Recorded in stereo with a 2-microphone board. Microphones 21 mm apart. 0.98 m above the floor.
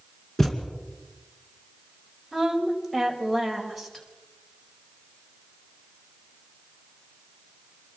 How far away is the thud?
About 2.5 m.